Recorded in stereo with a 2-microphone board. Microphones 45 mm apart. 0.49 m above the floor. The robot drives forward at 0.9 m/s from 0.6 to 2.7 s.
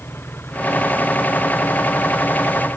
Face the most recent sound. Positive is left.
turn(degrees=55)  # may be behind; listen again after turning